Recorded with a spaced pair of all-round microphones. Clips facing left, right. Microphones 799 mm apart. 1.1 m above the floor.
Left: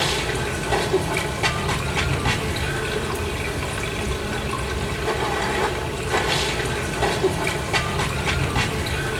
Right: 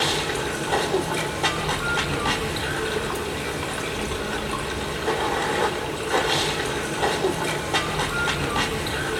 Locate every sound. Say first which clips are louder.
0.0 s running water: left 1 dB; 55° left (ahead or behind), 2.5 m